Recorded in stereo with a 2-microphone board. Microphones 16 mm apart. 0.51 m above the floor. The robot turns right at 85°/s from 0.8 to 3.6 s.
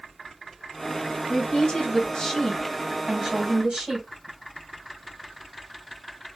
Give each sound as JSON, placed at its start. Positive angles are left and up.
{"t": 1.3, "sound": "a woman speaking", "azimuth_deg": 60, "distance_m": 2.5}